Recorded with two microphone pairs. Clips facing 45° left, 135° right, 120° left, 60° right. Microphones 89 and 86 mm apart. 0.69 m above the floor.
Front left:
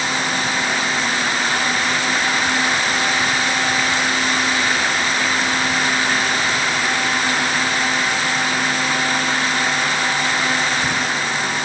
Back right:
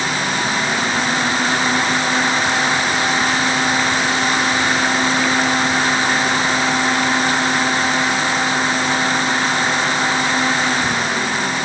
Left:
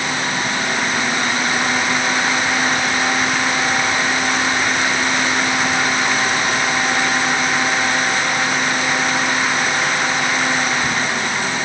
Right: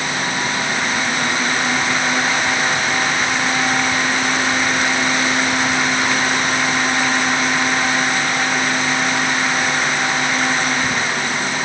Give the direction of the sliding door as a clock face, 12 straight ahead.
I don't hear a sliding door.